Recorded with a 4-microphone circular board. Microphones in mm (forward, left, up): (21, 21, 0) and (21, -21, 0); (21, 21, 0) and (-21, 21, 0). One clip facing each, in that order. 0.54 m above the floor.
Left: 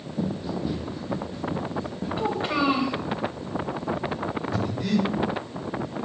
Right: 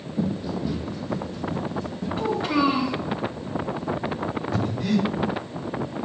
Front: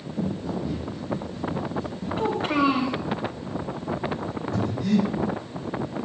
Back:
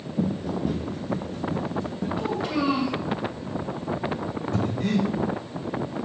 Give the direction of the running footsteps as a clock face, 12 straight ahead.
6 o'clock.